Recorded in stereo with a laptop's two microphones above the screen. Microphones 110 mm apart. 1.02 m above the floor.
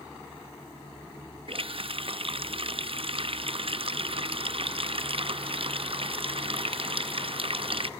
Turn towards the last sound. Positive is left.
turn(degrees=-55)  # may be behind; listen again after turning